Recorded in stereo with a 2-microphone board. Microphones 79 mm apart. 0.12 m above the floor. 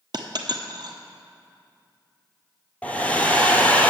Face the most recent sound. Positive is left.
turn(degrees=15)  # may be behind; listen again after turning